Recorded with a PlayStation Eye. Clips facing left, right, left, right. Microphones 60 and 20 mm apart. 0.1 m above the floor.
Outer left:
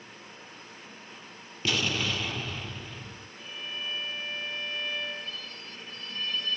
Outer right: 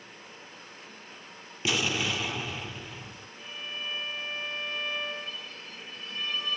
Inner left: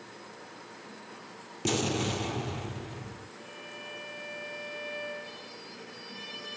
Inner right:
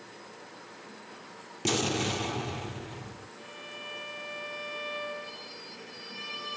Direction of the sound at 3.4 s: 10° right (ahead or behind).